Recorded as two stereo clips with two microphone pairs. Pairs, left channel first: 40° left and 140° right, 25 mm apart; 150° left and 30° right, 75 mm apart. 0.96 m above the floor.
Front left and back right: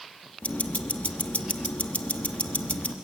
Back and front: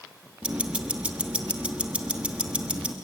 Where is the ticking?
45° left, 0.9 m.